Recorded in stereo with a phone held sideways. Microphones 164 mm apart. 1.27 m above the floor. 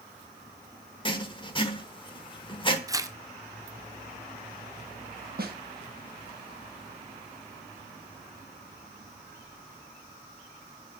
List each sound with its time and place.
1.1 s writing: 30° left (ahead or behind), 1.4 m
2.9 s tearing paper: 20° right (ahead or behind), 0.8 m
5.4 s a snare drum: 65° right (ahead or behind), 1.9 m